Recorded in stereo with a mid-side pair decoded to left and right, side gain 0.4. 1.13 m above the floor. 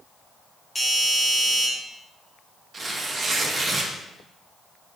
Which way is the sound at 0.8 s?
15° left.